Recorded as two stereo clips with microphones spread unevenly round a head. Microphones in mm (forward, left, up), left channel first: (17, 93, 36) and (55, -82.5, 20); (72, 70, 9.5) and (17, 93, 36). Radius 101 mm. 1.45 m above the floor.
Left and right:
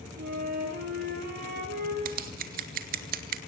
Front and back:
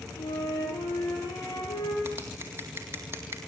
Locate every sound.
0.2 s a flute: 40° right, 8 m
2.0 s scissors: 125° right, 1.9 m